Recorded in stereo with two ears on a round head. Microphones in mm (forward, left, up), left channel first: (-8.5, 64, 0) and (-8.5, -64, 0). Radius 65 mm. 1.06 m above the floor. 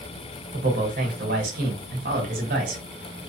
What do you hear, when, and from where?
0.5 s a man speaking: 70° right (ahead or behind), 1.3 m